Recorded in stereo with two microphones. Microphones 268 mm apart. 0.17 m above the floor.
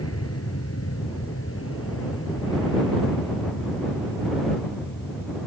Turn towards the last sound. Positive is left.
turn(degrees=45)  # may be behind; listen again after turning